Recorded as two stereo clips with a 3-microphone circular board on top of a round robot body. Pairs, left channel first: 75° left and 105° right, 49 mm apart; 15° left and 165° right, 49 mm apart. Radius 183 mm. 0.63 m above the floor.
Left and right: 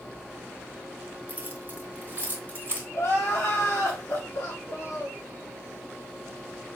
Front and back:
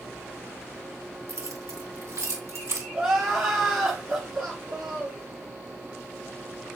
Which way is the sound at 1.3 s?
160° right.